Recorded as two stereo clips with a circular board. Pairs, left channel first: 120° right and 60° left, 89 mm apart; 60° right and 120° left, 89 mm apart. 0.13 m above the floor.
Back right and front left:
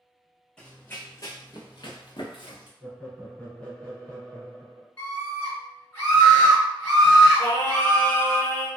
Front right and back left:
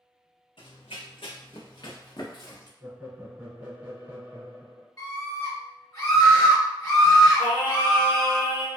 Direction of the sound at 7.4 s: 50° left.